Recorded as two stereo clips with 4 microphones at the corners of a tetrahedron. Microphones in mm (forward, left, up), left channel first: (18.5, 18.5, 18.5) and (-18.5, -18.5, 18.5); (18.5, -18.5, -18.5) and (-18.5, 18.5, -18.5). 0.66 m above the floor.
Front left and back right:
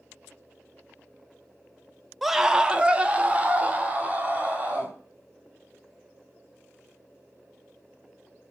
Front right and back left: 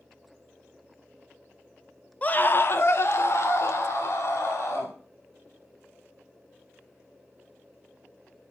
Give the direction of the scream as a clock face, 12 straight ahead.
2 o'clock.